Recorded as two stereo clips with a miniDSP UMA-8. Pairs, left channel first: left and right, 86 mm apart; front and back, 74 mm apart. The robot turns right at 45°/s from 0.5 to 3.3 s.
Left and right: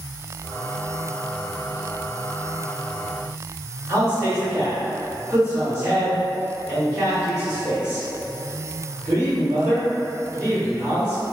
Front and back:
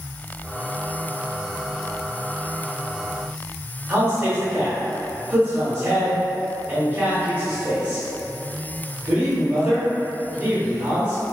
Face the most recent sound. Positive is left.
turn(degrees=-140)